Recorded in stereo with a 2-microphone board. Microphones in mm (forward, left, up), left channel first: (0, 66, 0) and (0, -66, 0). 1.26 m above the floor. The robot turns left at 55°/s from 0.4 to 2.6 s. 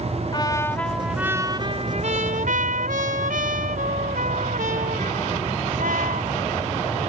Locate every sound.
0.3 s a trumpet: 30° left; by 6.6 s 90° right